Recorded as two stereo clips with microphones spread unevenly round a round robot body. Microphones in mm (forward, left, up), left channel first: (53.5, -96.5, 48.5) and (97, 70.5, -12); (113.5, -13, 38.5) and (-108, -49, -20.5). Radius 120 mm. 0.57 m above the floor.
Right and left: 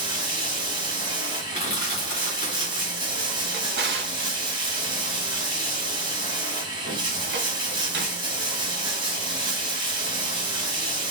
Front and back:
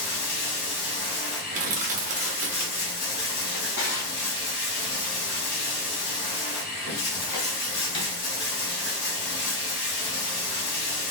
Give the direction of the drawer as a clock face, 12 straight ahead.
10 o'clock.